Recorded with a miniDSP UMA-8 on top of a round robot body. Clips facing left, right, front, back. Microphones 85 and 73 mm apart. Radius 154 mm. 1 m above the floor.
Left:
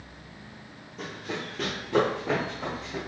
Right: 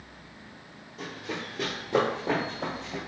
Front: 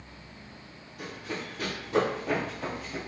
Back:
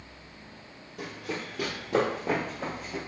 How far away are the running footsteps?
About 1.7 m.